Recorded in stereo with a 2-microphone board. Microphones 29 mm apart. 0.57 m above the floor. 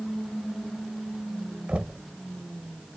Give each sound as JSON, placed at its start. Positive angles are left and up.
{"t": 1.7, "sound": "knocking", "side_deg": -50}